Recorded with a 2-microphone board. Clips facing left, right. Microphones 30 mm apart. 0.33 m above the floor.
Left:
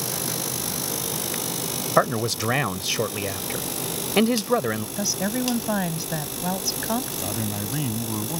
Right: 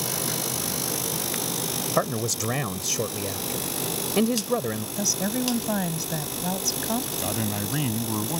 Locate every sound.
2.0 s a man speaking: 35° left (ahead or behind)
5.0 s a woman speaking: 20° left (ahead or behind)
7.2 s a man speaking: 15° right (ahead or behind)